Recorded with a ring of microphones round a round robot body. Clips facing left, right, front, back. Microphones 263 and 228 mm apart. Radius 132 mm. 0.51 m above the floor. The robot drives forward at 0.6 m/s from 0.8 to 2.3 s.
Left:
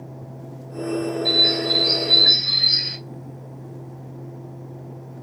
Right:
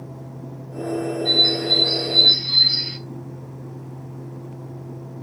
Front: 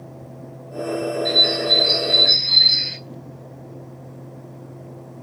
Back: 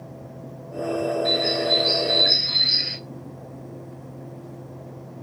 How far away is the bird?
About 2 m.